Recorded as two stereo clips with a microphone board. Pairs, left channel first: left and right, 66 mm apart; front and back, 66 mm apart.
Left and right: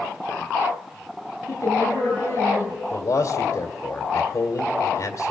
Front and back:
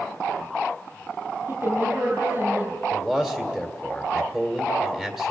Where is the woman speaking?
130° left, 9 m.